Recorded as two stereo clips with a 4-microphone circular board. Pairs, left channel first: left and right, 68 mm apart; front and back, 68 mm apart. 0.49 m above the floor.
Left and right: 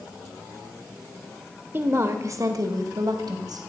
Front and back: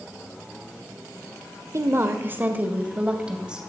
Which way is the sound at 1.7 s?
145° right.